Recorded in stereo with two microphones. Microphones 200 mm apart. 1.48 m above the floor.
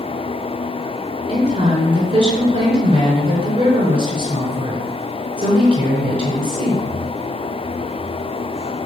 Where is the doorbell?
No doorbell in this recording.